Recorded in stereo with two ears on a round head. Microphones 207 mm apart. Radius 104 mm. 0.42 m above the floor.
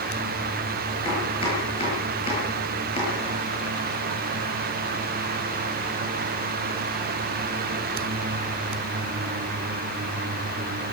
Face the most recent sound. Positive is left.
turn(degrees=25)  # may be behind; listen again after turning